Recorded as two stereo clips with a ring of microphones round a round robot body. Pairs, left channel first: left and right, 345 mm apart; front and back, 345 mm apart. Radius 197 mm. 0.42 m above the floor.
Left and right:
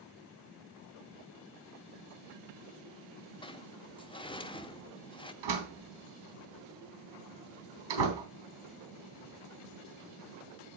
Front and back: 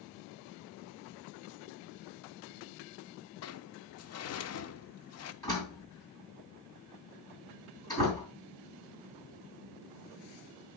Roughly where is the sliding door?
Ahead.